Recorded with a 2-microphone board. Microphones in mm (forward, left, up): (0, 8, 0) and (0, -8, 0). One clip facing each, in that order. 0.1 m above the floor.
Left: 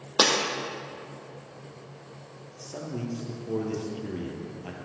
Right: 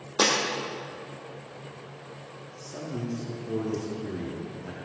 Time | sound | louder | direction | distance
0.2 | breaking glass | left 1 dB | 35° left (ahead or behind) | 2 m
2.6 | a man speaking | even | 30° left (ahead or behind) | 2.5 m